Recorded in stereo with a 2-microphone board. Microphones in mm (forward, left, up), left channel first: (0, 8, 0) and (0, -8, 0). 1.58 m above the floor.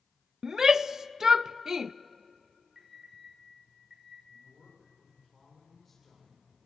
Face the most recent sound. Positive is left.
turn(degrees=10)  # may be behind; listen again after turning